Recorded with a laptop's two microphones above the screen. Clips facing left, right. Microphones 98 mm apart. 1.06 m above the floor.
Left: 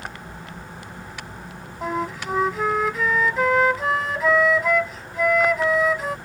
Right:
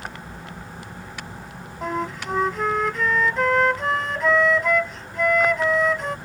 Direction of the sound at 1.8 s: 5° left (ahead or behind).